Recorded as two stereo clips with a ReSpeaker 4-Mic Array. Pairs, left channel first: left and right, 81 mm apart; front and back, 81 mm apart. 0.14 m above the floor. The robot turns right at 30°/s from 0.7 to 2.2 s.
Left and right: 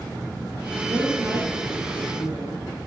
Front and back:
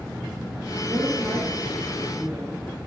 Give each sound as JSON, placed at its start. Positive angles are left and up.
{"t": 0.9, "sound": "a woman speaking", "azimuth_deg": -145, "distance_m": 4.0}